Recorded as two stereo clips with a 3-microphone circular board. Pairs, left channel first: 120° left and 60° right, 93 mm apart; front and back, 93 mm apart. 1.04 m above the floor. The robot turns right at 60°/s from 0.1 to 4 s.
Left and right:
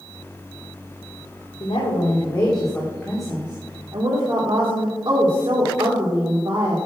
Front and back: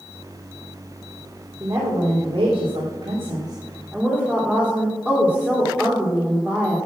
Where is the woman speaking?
115° left, 2.5 m; by 6.8 s 100° right, 2.5 m.